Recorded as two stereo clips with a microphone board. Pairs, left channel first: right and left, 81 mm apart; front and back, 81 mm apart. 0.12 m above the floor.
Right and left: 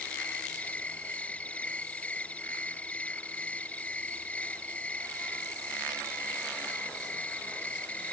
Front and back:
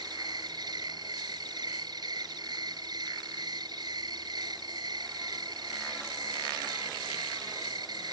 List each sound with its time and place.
0.0 s an insect: 160° right